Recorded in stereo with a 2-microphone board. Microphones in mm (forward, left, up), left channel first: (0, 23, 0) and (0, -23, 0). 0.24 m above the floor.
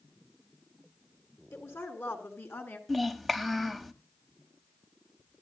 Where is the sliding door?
No sliding door in this recording.